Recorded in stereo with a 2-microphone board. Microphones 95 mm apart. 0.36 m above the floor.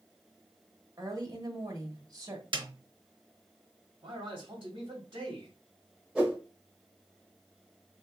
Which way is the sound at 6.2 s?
5° right (ahead or behind).